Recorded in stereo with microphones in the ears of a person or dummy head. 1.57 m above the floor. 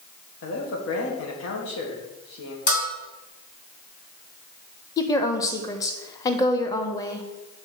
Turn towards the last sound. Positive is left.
turn(degrees=15)  # may be behind; listen again after turning